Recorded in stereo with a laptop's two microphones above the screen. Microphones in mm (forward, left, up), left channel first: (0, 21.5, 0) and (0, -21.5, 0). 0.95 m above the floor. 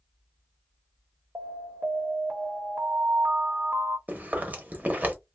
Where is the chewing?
40° right (ahead or behind), 0.8 m.